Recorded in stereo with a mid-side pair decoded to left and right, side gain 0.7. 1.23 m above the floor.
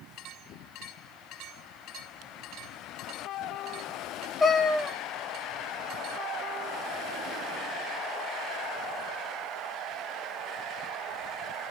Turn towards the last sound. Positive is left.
turn(degrees=10)